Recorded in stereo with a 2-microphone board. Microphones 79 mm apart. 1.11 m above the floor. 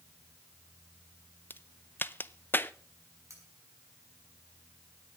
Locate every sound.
1.5 s a crack: 25° left (ahead or behind), 0.6 m
3.3 s cutlery clinking: 45° right (ahead or behind), 5.5 m